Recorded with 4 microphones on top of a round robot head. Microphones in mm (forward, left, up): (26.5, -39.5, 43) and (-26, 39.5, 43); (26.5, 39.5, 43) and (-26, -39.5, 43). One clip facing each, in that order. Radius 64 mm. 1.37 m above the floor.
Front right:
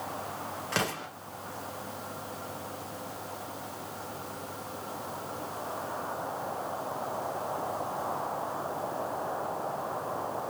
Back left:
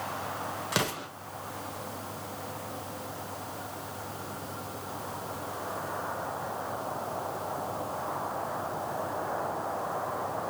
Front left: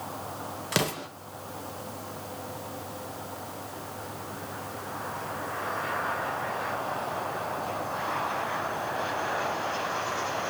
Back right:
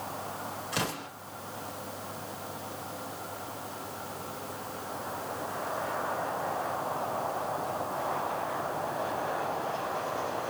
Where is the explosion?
45° left, 0.9 m.